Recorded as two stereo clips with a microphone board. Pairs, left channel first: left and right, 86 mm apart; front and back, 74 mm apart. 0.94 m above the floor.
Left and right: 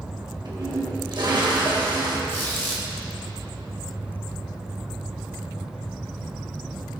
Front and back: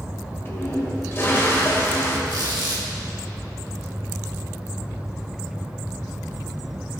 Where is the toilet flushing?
60° right, 1.2 m.